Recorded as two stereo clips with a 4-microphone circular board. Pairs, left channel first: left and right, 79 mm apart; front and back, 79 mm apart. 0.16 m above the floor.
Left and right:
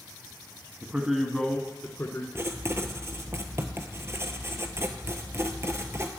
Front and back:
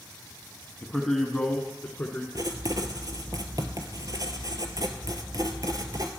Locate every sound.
0.8 s a man speaking: 95° right, 1.1 m; by 2.2 s 65° left, 1.6 m
2.4 s writing: 145° right, 0.9 m